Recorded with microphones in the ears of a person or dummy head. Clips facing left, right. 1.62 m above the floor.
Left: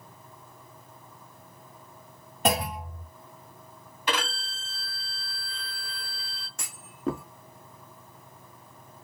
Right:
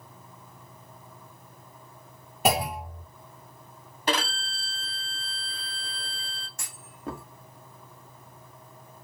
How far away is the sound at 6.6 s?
About 0.6 m.